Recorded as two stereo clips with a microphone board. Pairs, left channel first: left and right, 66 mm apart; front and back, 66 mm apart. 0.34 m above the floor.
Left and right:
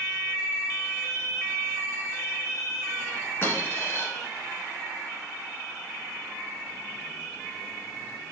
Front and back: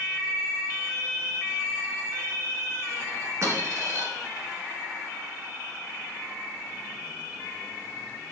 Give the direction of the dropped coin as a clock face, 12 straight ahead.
7 o'clock.